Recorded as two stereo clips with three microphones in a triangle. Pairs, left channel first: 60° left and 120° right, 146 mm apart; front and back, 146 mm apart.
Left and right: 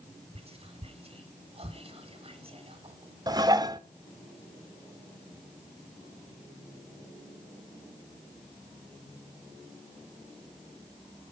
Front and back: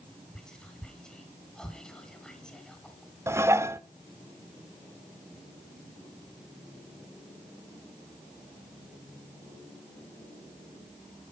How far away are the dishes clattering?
About 0.8 m.